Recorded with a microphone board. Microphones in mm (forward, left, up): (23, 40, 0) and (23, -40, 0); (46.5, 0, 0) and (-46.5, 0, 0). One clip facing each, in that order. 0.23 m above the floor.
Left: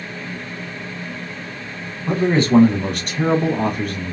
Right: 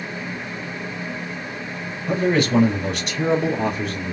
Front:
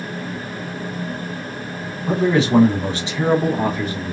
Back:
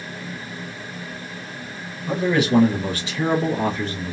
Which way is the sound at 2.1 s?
35° left.